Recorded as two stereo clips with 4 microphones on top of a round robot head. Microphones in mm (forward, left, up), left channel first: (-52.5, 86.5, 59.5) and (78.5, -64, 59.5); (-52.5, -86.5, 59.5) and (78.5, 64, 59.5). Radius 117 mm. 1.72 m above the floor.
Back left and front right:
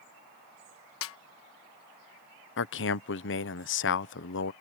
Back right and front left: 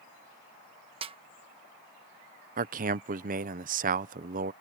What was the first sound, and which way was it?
A snare drum, 115° left.